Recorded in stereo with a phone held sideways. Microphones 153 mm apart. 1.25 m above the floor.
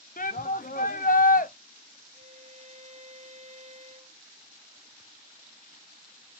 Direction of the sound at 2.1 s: 50° right (ahead or behind).